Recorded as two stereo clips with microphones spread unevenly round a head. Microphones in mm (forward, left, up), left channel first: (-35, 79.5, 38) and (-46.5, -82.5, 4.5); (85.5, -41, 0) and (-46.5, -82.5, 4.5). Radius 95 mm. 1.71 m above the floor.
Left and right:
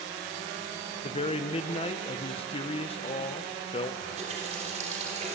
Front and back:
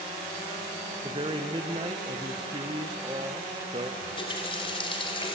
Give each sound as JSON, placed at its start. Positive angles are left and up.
{"t": 1.0, "sound": "a man speaking", "azimuth_deg": 135, "distance_m": 1.2}
{"t": 4.0, "sound": "a running tap", "azimuth_deg": -35, "distance_m": 3.5}